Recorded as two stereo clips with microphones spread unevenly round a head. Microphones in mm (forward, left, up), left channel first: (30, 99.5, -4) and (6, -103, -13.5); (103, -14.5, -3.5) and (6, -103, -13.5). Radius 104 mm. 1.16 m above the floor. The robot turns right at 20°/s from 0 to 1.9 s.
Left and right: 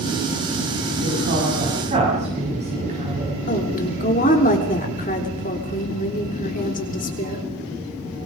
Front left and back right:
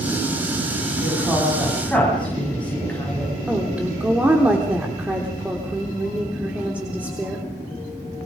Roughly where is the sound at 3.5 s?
Behind left.